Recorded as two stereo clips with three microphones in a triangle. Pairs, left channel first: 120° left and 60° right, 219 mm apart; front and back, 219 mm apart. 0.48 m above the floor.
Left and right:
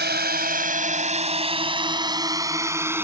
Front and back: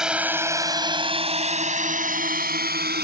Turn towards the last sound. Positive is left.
turn(degrees=-140)